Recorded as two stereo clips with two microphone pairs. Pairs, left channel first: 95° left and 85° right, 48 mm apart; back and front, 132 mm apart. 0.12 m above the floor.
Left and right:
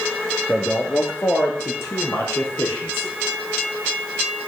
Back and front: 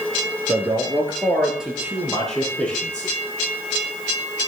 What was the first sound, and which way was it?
A man speaking, 40° left.